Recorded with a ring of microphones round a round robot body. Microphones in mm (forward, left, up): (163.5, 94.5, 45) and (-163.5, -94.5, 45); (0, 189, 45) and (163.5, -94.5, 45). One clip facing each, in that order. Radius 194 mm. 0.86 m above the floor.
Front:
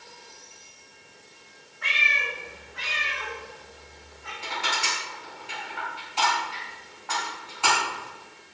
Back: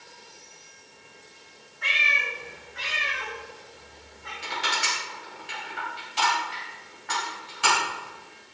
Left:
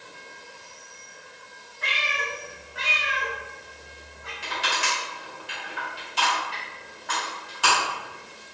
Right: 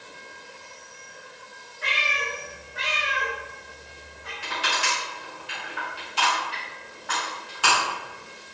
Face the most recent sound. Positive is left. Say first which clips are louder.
# even, even
turn(degrees=145)